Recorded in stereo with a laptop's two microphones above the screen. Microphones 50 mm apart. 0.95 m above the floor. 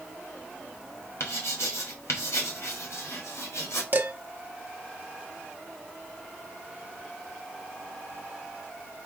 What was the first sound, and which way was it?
Writing, 75° left (ahead or behind).